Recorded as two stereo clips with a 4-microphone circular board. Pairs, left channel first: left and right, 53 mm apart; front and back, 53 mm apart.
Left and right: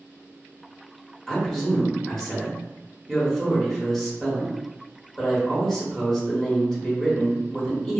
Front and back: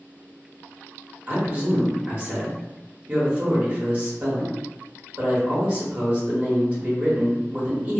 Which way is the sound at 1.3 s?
155° left.